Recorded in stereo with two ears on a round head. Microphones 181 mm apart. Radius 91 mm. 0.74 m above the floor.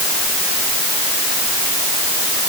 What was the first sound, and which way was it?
Only background noise.